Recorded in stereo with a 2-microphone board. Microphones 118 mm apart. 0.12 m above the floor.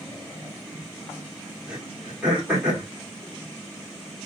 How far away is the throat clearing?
About 2.5 m.